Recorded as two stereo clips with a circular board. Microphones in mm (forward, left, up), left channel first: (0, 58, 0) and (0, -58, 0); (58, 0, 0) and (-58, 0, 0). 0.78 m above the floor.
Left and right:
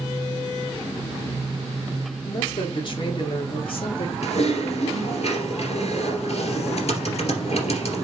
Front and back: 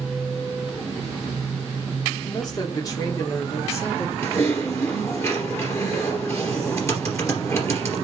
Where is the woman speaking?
50° left, 2.5 m; by 4.1 s 65° left, 1.7 m.